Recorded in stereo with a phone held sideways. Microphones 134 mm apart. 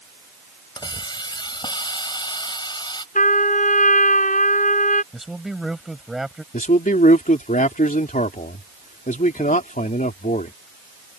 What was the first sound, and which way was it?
A hiss, 35° left (ahead or behind).